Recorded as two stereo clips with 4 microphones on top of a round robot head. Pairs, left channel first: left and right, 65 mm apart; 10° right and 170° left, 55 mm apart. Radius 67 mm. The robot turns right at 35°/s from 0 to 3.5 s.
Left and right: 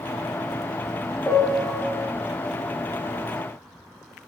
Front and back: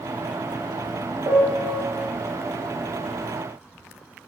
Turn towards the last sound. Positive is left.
turn(degrees=-120)